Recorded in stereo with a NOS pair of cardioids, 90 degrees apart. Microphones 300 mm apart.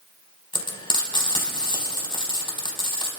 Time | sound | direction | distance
0.5 | frying | 15° left | 5 m